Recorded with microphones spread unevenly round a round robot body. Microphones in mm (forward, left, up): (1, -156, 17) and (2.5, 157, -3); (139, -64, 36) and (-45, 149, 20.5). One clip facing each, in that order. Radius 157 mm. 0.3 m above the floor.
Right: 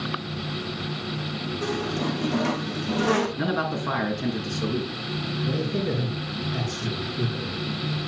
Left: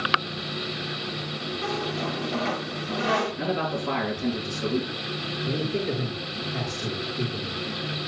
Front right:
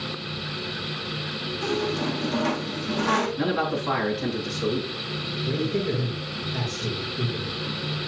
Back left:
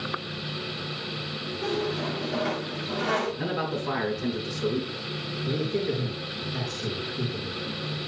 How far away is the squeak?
About 3 m.